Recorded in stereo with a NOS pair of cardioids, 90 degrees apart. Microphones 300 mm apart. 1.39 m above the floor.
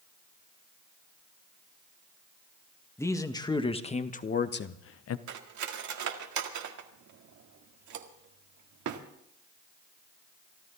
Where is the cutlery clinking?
70° right, 1.9 m.